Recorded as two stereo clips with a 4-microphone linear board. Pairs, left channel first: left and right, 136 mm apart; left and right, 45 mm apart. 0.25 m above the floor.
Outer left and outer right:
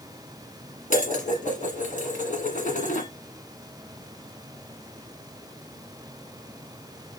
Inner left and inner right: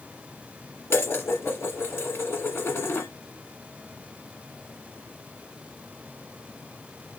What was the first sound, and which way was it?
Dishes clattering, 65° left (ahead or behind).